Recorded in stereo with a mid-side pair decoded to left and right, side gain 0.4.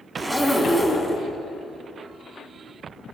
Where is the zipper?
10° left, 2.5 m.